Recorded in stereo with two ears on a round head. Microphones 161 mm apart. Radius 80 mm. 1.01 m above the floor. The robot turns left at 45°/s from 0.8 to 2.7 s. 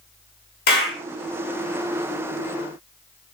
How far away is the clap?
About 2 m.